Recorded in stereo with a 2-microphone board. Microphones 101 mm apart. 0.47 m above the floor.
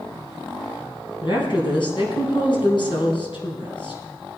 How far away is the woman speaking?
About 3.5 m.